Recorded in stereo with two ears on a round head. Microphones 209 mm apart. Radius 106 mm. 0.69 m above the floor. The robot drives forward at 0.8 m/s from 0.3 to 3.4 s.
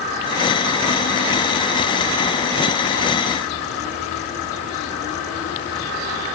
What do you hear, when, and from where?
Only background noise.